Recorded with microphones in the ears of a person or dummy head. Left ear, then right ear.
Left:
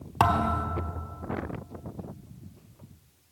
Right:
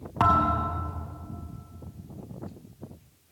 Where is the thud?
15° left (ahead or behind), 1.1 m.